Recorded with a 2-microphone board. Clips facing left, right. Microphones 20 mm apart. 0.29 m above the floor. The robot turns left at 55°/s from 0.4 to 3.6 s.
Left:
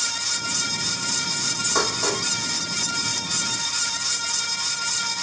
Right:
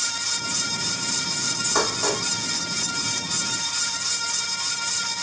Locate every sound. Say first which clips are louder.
1.8 s dishes clattering: even; 5° right (ahead or behind), 1.3 m; by 2.2 s 15° left (ahead or behind), 1.3 m